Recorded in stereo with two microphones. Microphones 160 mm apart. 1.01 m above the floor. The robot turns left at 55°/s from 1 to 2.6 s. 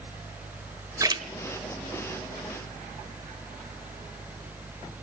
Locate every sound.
1.0 s a splash: 20° right (ahead or behind), 1.3 m; by 1.2 s 30° right (ahead or behind), 1.3 m